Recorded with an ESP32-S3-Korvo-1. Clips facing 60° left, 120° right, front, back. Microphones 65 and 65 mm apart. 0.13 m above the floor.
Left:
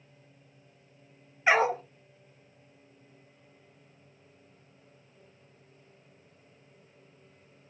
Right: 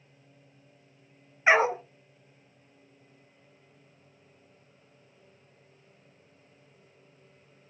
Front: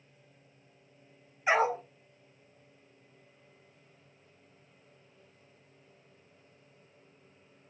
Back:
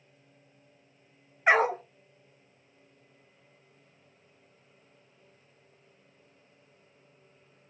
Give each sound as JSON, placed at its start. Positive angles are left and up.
{"t": 1.5, "sound": "a dog barking", "azimuth_deg": 175, "distance_m": 0.7}